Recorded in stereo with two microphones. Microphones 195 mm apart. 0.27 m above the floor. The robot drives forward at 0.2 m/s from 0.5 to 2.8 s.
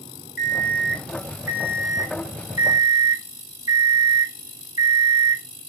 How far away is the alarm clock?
About 0.9 m.